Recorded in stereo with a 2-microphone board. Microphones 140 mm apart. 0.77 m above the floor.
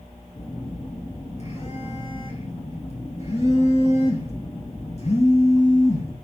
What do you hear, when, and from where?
0.3 s a phone buzzing: 50° left (ahead or behind), 5.5 m